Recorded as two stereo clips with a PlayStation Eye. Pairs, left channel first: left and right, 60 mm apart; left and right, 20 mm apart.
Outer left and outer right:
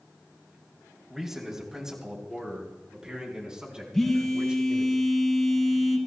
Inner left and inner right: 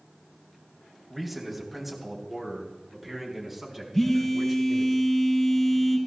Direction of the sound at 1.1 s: 5° right (ahead or behind).